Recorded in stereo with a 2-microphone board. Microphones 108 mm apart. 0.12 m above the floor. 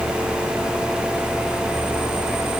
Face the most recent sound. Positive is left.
No sound to turn to.